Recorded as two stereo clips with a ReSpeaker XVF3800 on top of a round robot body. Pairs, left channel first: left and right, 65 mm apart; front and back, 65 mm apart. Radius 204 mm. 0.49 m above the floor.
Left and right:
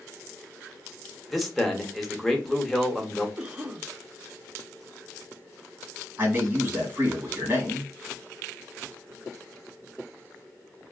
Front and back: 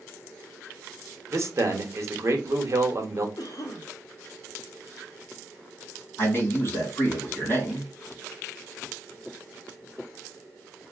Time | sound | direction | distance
1.3 | a man speaking | straight behind | 1.1 m
3.4 | a cough | 25° right | 1.4 m
6.2 | a man speaking | 40° right | 1.9 m